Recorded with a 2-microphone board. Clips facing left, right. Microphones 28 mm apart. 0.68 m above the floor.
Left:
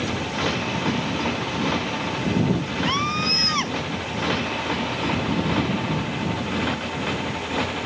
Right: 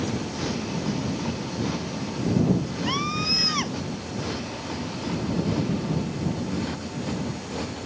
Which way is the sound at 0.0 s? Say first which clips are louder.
Left 4 dB; 50° left (ahead or behind).